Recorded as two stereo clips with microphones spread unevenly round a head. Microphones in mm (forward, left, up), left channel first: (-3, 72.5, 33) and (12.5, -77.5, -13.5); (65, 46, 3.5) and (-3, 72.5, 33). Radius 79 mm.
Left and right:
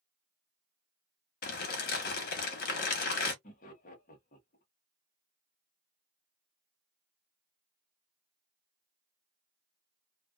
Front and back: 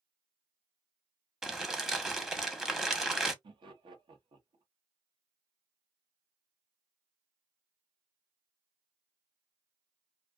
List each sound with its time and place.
1.4 s crumpling: 80° left, 0.9 m
3.4 s laughter: 140° left, 1.1 m